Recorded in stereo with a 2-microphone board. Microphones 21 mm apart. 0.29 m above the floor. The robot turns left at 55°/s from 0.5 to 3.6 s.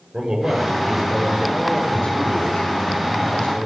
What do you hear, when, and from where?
0.1 s a man speaking: 145° right, 7 m; by 3.7 s 45° left, 7 m